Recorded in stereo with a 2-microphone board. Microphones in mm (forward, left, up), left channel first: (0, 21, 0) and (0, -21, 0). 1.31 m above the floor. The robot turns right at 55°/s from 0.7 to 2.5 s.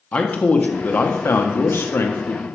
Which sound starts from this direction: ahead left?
A man speaking, at 0.1 s.